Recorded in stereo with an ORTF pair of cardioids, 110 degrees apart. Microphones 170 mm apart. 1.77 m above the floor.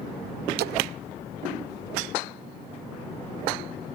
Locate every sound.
0.6 s a splash: 70° right